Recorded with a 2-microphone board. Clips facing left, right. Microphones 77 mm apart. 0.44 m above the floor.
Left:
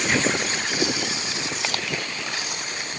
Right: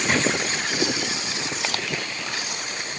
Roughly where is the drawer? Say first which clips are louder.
Right 1 dB; right.